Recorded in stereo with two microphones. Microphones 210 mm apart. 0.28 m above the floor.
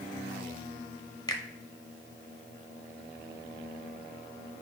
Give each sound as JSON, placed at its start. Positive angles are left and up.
{"t": 1.3, "sound": "a finger snap", "side_deg": 20, "distance_m": 1.0}